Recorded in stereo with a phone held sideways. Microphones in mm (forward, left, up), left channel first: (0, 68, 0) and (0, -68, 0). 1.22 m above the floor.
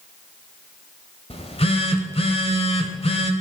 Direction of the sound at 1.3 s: 50° left (ahead or behind).